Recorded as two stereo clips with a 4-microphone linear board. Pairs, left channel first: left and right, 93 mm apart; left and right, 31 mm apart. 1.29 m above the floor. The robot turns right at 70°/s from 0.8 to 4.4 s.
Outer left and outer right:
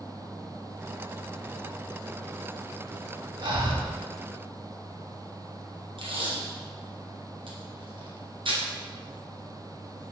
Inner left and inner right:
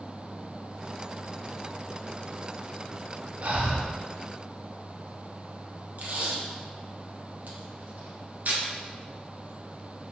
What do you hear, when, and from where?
3.4 s breathing: 125° right, 1.4 m; by 3.9 s 90° right, 1.4 m
6.0 s tape being pulled: 65° right (ahead or behind), 1.4 m